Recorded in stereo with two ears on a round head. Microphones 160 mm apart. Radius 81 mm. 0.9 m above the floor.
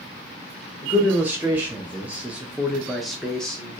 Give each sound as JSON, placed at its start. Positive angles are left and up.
{"t": 0.8, "sound": "a man speaking", "side_deg": -10, "distance_m": 1.0}